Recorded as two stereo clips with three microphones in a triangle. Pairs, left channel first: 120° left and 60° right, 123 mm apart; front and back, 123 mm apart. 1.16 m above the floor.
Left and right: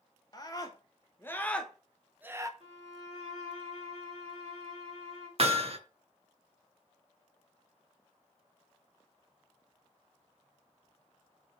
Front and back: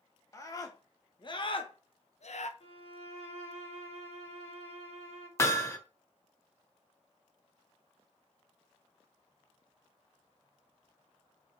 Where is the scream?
60° left, 1.8 m; by 2.5 s straight ahead, 0.9 m.